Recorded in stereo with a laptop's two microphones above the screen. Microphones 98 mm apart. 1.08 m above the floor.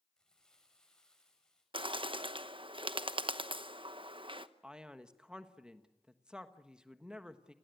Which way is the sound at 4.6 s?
10° right (ahead or behind).